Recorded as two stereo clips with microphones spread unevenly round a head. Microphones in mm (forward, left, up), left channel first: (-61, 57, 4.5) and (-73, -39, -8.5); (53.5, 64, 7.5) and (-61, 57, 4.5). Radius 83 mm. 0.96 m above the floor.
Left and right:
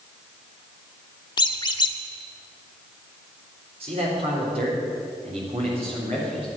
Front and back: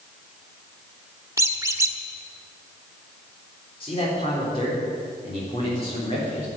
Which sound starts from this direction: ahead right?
A man speaking, at 3.8 s.